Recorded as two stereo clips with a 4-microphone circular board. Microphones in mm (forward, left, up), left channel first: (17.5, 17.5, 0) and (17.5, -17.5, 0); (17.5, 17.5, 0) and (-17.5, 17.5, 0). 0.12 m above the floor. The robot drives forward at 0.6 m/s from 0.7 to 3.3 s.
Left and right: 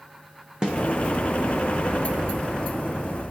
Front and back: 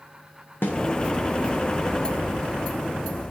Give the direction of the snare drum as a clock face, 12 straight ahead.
1 o'clock.